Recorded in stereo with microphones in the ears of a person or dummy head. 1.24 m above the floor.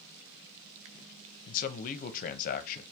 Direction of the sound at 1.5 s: 40° left (ahead or behind).